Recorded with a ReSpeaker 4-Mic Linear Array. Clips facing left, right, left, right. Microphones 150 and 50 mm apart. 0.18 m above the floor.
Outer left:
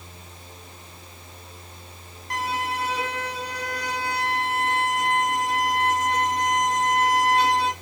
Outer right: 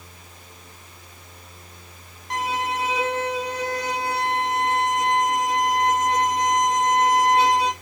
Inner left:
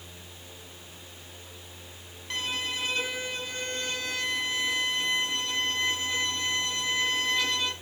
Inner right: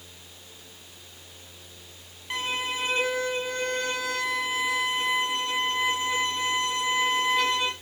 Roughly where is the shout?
No shout in this recording.